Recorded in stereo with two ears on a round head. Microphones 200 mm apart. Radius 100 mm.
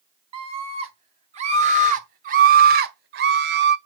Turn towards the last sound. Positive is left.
turn(degrees=-50)  # may be behind; listen again after turning